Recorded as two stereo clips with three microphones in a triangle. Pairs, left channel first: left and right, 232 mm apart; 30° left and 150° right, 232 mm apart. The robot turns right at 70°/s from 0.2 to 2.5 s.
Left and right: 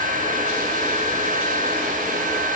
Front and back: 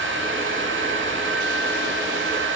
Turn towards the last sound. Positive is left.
No sound to turn to.